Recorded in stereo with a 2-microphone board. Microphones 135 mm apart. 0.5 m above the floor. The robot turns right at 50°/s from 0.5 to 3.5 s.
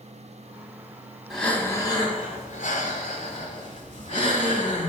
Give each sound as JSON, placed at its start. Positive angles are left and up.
{"t": 1.3, "sound": "breathing", "azimuth_deg": 0, "distance_m": 1.6}